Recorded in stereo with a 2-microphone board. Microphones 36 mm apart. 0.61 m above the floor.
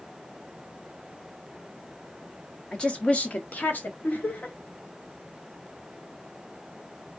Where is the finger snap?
No finger snap in this recording.